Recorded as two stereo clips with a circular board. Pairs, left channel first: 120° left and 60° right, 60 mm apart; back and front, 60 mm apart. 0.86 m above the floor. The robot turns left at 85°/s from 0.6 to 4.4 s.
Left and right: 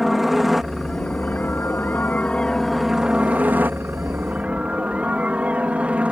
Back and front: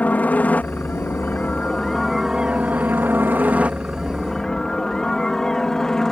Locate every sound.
0.0 s a helicopter: 145° right; by 6.1 s 105° right